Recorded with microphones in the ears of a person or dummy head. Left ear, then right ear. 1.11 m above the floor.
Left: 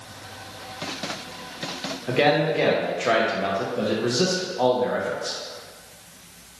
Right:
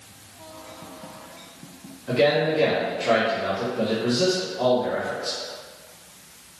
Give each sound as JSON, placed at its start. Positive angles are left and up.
{"t": 2.1, "sound": "a man speaking", "side_deg": 40, "distance_m": 0.6}